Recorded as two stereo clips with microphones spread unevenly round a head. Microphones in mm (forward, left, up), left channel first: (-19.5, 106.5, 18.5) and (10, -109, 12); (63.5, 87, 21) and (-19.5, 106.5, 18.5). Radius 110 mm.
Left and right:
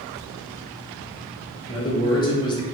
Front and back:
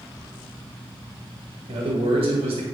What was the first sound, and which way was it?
A man speaking, 170° left.